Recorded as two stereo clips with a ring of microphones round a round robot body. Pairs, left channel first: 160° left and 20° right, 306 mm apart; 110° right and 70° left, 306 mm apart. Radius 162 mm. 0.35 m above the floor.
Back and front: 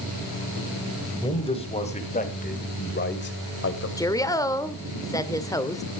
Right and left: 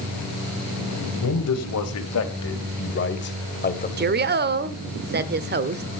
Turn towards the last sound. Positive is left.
turn(degrees=85)